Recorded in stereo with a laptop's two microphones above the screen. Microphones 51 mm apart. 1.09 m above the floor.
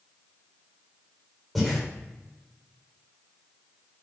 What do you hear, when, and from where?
1.6 s breathing: centre (ahead or behind), 2 m